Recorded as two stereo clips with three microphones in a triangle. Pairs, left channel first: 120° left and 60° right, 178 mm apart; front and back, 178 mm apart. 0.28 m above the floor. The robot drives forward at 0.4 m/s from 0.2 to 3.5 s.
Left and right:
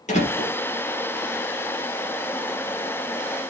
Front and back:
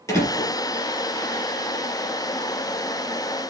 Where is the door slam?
75° left, 3.5 m.